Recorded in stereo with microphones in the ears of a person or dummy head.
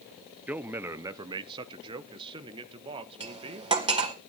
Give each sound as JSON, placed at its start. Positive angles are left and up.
{"t": 0.5, "sound": "a man speaking", "side_deg": -10, "distance_m": 0.6}
{"t": 3.2, "sound": "cutlery clinking", "side_deg": -25, "distance_m": 1.9}